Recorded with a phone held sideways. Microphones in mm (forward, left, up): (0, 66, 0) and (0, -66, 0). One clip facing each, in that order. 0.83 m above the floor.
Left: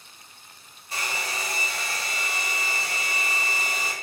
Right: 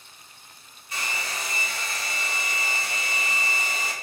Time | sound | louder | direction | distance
0.9 | a hair dryer | left 1 dB | 35° left (ahead or behind) | 1.0 m